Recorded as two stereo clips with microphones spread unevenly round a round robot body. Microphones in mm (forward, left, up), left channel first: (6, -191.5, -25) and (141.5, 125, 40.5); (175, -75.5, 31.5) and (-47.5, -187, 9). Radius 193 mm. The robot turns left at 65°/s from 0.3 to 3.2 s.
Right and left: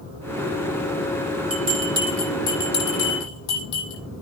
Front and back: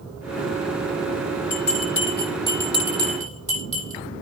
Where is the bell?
20° left, 8 m; by 4.0 s 90° right, 8 m.